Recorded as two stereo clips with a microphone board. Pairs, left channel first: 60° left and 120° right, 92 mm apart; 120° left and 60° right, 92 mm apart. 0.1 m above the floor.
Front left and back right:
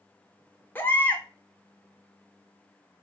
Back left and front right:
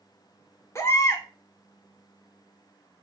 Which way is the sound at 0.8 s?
105° left.